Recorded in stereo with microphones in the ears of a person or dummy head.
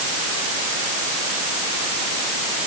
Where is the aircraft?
I don't hear an aircraft.